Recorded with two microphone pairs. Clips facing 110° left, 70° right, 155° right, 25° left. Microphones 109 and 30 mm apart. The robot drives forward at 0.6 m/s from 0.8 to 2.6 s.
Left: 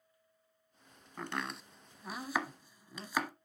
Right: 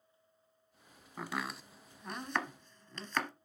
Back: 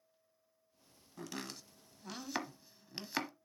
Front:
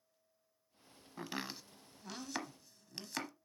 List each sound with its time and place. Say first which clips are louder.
1.2 s chopping: even, front 2 dB; 10° left, 1.1 m; by 3.3 s 165° left, 1.0 m